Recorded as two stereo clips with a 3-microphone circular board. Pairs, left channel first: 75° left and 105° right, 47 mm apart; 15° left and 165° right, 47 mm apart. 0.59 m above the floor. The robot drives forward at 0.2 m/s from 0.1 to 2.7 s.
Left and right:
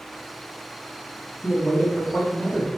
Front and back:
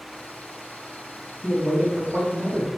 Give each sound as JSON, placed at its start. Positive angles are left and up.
{"t": 1.4, "sound": "a man speaking", "azimuth_deg": 90, "distance_m": 0.6}